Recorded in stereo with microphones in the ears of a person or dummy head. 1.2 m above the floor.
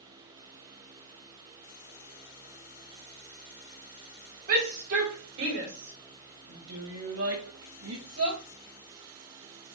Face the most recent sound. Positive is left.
turn(degrees=-75)  # may be behind; listen again after turning